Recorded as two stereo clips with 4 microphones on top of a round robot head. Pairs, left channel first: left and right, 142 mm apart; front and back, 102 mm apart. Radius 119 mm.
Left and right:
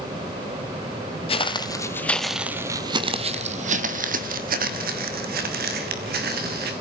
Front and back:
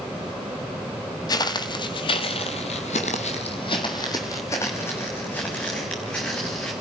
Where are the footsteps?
45° left, 1.1 m; by 6.7 s 85° right, 3 m.